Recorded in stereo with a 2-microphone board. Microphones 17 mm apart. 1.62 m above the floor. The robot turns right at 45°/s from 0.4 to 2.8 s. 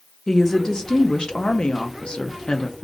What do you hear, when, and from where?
0.3 s a woman speaking: 25° left, 0.6 m; by 2.9 s 135° left, 0.6 m